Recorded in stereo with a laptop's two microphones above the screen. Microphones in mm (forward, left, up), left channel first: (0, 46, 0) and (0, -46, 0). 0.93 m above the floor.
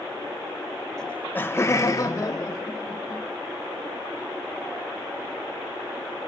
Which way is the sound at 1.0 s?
5° left (ahead or behind).